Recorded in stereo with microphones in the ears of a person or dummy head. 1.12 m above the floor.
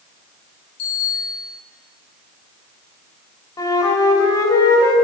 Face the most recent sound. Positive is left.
turn(degrees=20)  # may be behind; listen again after turning